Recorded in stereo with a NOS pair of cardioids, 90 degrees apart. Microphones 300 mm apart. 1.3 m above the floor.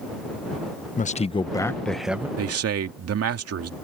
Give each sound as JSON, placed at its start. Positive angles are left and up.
{"t": 1.0, "sound": "a man speaking", "azimuth_deg": 25}
{"t": 2.4, "sound": "a man speaking", "azimuth_deg": -55}